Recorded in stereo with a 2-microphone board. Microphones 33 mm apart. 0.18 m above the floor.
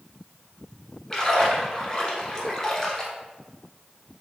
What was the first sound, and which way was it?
A splash, 20° left (ahead or behind).